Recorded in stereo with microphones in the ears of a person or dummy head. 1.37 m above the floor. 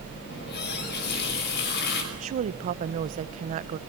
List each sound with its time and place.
0.3 s a running tap: 55° left (ahead or behind), 5 m
2.1 s a woman speaking: 40° right (ahead or behind), 0.8 m